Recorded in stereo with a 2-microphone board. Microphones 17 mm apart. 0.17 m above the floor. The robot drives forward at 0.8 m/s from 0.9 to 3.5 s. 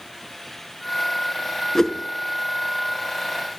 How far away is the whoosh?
About 0.7 m.